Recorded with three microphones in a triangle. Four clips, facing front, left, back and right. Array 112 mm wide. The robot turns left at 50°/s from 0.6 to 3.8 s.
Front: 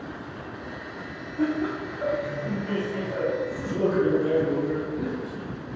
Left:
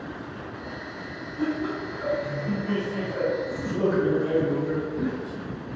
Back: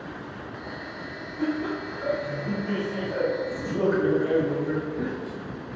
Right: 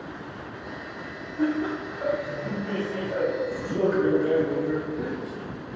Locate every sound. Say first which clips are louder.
1.4 s laughter: right 2 dB, front 2 dB; 25° right, 1.8 m; by 5.1 s 145° right, 1.8 m